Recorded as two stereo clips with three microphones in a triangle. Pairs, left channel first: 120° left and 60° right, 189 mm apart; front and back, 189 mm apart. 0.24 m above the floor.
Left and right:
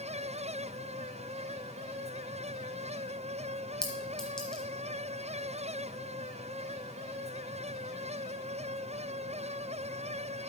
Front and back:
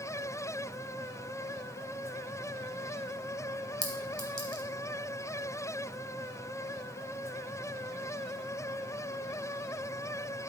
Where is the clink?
155° right, 1.4 m.